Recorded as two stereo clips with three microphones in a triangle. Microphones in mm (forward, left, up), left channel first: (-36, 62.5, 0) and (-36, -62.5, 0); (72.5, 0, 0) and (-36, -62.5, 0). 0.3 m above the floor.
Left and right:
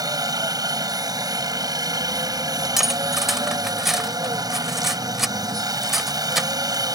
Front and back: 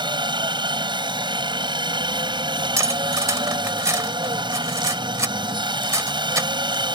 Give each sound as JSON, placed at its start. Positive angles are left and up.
{"t": 0.0, "sound": "a helicopter", "azimuth_deg": -130}
{"t": 2.8, "sound": "cutlery clinking", "azimuth_deg": -175}